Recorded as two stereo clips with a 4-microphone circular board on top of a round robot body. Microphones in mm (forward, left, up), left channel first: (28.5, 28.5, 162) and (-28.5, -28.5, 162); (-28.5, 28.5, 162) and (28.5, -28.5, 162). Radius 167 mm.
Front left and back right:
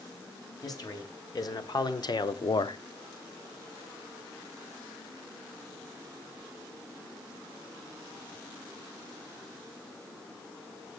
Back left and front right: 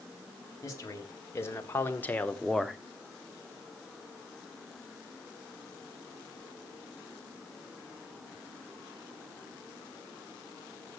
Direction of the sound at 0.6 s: 85° left.